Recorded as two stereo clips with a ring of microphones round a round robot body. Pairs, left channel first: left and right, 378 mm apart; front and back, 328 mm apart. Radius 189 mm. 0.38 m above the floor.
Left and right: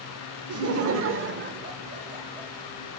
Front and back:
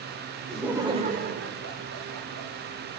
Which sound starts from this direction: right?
Laughter, at 0.5 s.